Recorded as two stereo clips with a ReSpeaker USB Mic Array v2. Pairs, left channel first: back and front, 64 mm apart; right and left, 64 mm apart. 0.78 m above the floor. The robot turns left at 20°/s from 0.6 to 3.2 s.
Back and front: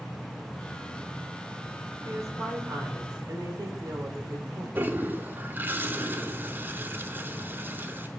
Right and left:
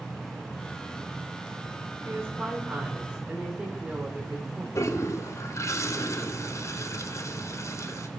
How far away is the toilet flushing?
About 0.6 m.